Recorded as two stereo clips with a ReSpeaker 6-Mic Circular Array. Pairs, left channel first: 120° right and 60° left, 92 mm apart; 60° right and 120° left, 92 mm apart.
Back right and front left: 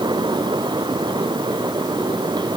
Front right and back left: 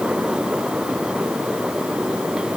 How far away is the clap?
I don't hear a clap.